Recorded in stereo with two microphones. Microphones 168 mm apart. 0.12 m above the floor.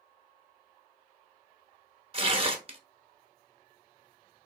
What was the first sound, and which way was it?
Tearing paper, 35° right (ahead or behind).